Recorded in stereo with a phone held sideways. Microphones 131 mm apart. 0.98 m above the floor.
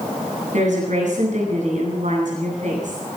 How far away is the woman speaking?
About 10 m.